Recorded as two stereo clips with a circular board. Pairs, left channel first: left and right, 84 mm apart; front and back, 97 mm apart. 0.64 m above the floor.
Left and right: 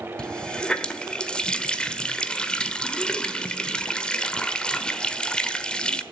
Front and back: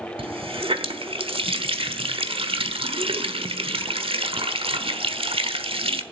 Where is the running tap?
170° left, 1.2 m.